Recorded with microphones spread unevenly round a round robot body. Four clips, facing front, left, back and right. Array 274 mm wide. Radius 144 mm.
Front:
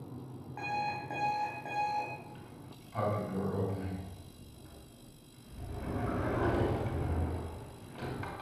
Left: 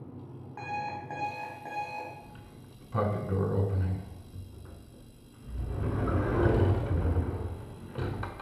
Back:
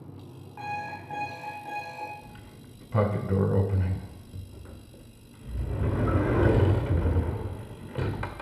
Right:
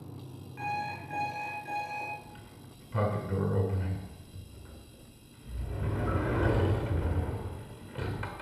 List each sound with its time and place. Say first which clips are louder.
0.6 s an alarm clock: right 1 dB, back 1 dB; 60° left, 3.5 m
2.2 s a sliding door: even, back 1 dB; 175° left, 1.3 m